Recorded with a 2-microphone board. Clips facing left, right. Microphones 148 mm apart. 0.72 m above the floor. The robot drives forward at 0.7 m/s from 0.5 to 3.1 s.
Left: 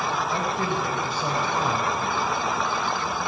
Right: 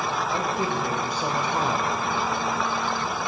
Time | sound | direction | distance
0.3 | a man speaking | 15° right (ahead or behind) | 3 m